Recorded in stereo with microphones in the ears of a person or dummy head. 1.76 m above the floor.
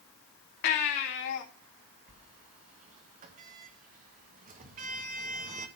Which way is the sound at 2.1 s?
40° right (ahead or behind).